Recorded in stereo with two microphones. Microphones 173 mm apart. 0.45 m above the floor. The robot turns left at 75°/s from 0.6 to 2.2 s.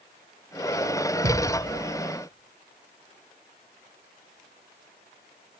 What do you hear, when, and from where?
1.2 s a thud: 60° right (ahead or behind), 1.7 m; by 1.6 s 30° right (ahead or behind), 1.7 m